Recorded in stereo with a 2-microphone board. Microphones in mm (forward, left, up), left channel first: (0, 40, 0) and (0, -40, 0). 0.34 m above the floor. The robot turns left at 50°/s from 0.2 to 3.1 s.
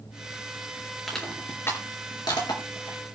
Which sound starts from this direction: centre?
Crushing, at 1.1 s.